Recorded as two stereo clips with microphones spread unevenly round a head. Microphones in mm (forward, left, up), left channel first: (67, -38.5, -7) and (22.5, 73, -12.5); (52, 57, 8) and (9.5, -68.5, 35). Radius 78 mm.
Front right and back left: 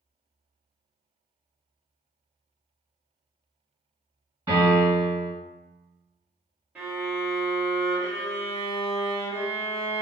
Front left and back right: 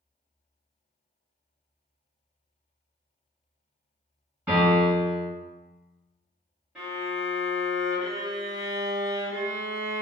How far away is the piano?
About 1.8 m.